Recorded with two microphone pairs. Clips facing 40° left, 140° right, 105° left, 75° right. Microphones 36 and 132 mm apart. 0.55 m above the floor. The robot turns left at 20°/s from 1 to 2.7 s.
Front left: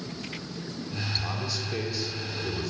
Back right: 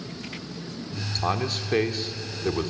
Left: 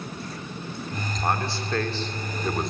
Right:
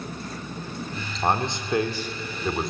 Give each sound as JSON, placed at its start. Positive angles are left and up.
{"t": 1.2, "sound": "a man speaking", "azimuth_deg": -135, "distance_m": 1.7}